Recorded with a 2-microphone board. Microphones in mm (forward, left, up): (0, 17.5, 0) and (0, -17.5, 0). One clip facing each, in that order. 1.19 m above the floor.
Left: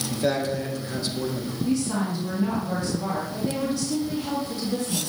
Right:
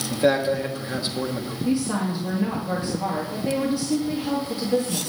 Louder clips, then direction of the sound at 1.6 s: Right 2 dB; 25° right (ahead or behind).